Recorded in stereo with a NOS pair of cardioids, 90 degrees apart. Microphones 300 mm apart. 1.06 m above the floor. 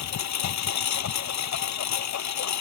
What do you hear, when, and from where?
0.0 s a lawn mower: 65° left